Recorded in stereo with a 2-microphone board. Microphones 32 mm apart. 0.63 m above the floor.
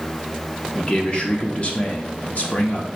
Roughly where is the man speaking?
Left.